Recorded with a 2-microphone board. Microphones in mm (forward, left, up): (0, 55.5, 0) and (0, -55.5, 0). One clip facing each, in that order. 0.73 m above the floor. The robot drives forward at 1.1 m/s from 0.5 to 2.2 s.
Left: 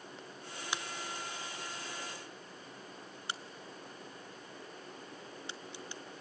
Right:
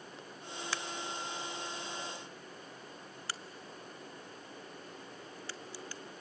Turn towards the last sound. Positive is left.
turn(degrees=20)  # may be behind; listen again after turning